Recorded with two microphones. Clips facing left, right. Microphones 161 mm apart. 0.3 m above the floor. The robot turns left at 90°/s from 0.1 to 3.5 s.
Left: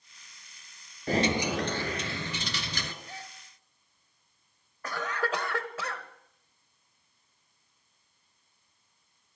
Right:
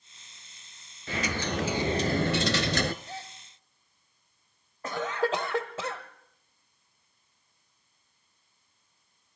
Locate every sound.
1.1 s a dropped coin: 45° left, 0.6 m; by 2.9 s 120° right, 0.6 m
3.0 s a gasp: 30° right (ahead or behind), 1.2 m
4.8 s a cough: 25° right (ahead or behind), 1.4 m